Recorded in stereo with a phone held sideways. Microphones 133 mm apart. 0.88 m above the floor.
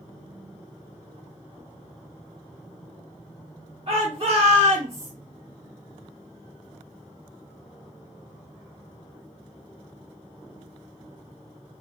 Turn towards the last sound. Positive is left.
turn(degrees=-50)  # may be behind; listen again after turning